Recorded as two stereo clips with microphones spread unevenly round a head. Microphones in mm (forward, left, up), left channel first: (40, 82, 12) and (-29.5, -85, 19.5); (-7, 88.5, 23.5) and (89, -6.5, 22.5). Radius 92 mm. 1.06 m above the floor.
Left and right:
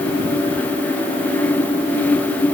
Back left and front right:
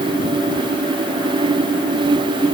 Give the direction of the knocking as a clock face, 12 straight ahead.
No knocking in this recording.